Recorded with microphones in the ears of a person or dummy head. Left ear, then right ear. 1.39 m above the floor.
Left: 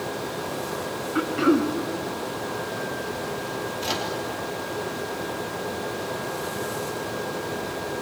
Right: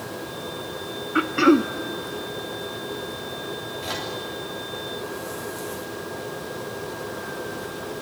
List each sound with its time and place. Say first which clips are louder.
1.1 s throat clearing: right 4 dB; 30° right (ahead or behind), 0.6 m
3.8 s a microwave: left 3 dB; 25° left (ahead or behind), 3 m